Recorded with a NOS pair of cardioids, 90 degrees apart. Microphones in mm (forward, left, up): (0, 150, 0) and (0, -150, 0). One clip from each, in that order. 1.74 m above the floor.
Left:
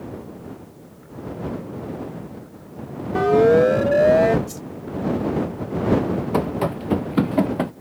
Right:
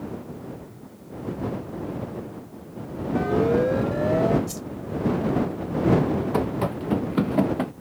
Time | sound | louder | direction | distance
3.1 | a siren | left 8 dB | 55° left | ?
4.5 | a whoosh | even | 20° right | ?
6.3 | running footsteps | left 3 dB | 25° left | ?